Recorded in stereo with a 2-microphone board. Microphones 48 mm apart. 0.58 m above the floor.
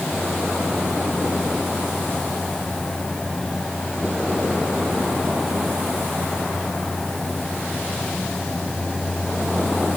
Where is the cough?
No cough in this recording.